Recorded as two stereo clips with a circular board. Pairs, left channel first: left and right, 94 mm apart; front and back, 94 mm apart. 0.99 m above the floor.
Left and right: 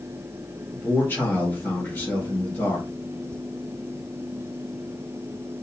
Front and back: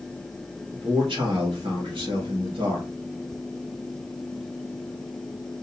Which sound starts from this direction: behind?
A man speaking, at 0.7 s.